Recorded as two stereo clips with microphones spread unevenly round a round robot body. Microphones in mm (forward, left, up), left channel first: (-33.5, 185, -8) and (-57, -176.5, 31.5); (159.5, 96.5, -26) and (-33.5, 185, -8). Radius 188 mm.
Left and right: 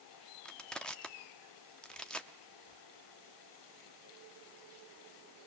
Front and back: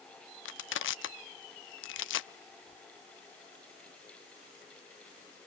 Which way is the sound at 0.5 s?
5° right.